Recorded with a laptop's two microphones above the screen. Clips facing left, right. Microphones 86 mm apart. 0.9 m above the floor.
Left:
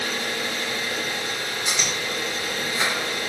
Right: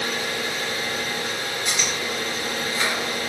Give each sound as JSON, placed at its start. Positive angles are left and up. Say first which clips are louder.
{"t": 0.0, "sound": "an engine running", "louder": "right 1 dB", "side_deg": -70, "distance_m": 1.5}
{"t": 1.6, "sound": "chewing", "louder": "even", "side_deg": 15, "distance_m": 1.5}